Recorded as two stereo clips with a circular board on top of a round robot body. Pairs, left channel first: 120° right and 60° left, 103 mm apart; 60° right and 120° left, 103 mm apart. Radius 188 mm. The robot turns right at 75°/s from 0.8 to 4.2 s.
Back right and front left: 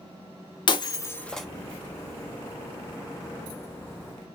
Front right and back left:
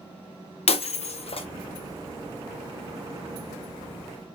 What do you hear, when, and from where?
0.7 s breaking glass: 75° right, 0.5 m; by 1.5 s 25° right, 0.5 m